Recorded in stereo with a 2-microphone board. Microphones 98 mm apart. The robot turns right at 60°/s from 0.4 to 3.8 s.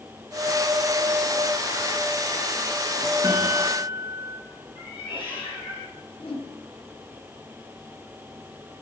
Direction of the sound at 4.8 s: 55° left (ahead or behind).